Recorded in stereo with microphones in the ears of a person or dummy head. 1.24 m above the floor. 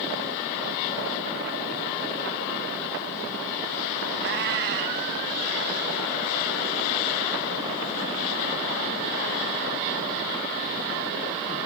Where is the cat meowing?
60° right (ahead or behind), 2 m.